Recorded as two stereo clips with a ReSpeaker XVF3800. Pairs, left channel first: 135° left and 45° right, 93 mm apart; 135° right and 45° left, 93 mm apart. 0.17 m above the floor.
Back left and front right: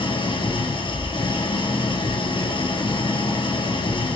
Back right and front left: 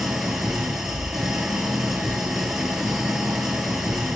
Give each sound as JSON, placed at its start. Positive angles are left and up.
{"t": 0.0, "sound": "an engine running", "azimuth_deg": 130, "distance_m": 2.5}